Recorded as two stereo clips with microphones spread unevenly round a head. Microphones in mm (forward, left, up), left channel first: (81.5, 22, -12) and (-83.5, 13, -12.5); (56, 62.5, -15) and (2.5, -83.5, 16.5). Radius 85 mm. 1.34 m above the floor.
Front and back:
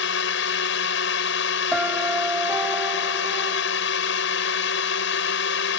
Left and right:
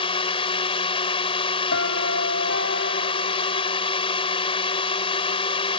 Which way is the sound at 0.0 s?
15° left.